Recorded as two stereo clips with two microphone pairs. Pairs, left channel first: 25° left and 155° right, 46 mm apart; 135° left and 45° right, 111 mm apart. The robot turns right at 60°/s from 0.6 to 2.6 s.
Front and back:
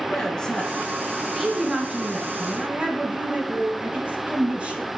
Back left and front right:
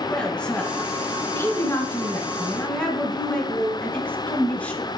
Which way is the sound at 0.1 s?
70° left.